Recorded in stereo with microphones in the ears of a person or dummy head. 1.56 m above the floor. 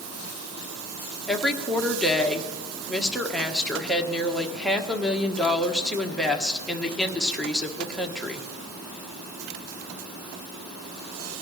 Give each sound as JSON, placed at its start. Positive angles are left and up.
{"t": 1.3, "sound": "a woman speaking", "side_deg": 0, "distance_m": 1.2}